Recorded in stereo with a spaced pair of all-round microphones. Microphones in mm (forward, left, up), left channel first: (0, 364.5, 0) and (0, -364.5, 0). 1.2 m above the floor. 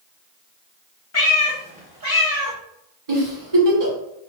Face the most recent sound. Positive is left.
turn(degrees=-60)  # may be behind; listen again after turning